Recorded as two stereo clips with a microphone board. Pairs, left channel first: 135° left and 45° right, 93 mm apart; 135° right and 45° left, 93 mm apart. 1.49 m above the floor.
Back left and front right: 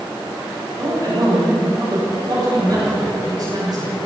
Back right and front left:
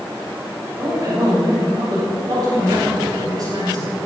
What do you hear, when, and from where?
0.8 s a man speaking: straight ahead, 10 m